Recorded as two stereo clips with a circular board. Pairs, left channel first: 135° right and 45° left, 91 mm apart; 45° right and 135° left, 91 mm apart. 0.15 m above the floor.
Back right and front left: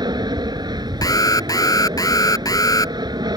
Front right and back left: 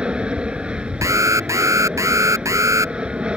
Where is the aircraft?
60° left.